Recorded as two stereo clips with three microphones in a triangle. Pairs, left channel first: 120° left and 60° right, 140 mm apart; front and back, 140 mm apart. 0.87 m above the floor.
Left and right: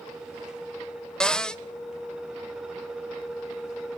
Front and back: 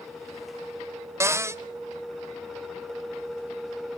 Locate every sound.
1.2 s a cupboard door: 165° right, 0.7 m